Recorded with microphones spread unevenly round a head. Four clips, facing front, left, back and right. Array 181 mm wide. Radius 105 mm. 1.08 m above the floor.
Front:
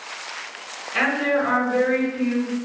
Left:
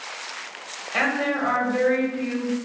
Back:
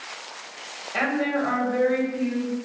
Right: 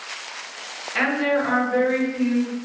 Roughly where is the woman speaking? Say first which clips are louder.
Right 3 dB, front 3 dB; behind left.